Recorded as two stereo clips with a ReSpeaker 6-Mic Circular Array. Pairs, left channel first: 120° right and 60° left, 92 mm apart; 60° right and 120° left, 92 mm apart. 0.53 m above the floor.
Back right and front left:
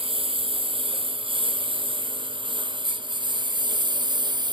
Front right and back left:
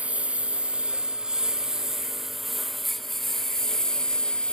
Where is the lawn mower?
45° left; by 4.5 s 20° left.